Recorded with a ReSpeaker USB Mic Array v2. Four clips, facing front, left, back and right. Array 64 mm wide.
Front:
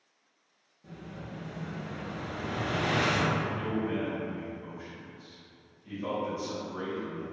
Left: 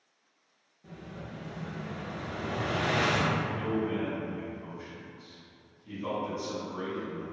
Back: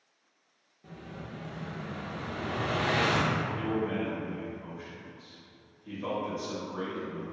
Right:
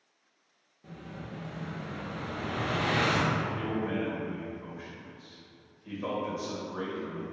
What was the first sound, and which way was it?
An explosion, 125° right.